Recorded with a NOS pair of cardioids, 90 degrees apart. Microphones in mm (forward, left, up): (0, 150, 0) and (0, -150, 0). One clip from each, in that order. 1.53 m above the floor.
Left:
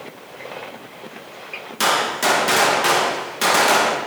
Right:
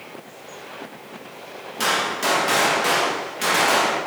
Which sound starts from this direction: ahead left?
A gunshot, at 1.8 s.